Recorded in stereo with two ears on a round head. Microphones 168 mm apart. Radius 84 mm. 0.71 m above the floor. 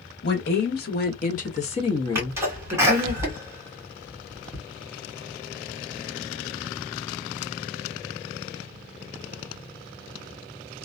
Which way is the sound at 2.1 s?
15° right (ahead or behind).